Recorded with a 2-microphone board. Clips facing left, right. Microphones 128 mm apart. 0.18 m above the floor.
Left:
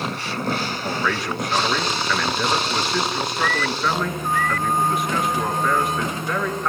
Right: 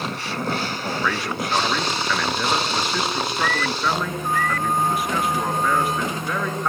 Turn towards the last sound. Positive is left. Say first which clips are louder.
# left 1 dB
turn(degrees=0)  # may be behind; listen again after turning